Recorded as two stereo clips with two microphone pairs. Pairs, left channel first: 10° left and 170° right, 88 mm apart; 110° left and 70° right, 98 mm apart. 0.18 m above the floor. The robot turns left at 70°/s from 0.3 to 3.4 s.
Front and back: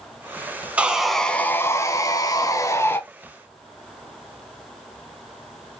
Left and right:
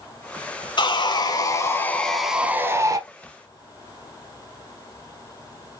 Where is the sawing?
115° left, 0.5 m; by 3.0 s 40° right, 0.5 m.